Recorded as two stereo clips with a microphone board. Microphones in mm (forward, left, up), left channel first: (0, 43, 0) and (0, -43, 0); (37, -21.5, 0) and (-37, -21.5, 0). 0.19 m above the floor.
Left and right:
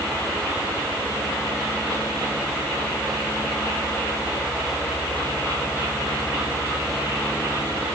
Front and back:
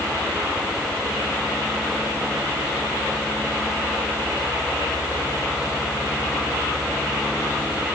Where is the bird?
I don't hear a bird.